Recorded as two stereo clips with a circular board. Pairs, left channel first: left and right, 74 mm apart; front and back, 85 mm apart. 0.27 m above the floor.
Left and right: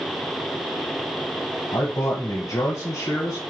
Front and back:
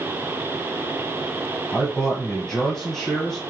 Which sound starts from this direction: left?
A man speaking, at 1.7 s.